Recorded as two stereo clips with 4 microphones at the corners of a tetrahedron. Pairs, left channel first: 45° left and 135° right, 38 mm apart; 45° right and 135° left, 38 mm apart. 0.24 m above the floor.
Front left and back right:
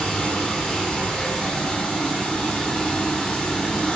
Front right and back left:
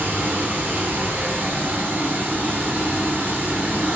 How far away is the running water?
About 1.1 m.